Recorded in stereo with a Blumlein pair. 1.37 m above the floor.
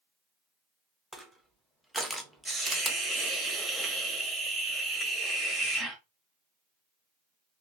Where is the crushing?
5° right, 0.6 m.